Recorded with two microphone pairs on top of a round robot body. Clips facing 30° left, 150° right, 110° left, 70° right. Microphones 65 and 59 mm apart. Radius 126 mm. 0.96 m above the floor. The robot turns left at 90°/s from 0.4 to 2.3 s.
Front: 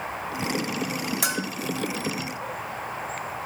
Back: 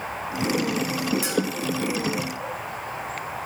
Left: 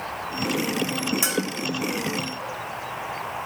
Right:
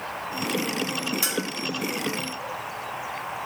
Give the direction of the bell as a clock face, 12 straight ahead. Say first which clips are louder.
Back 3 dB, left 3 dB; 11 o'clock.